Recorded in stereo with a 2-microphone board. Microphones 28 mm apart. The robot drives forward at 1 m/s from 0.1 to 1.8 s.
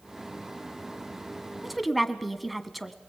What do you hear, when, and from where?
1.6 s a woman speaking: 5° right (ahead or behind), 1.2 m